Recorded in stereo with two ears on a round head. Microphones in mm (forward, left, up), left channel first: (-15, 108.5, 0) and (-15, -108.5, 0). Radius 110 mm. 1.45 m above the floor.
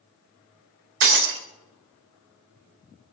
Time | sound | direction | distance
1.0 | breaking glass | 55° right (ahead or behind) | 3.5 m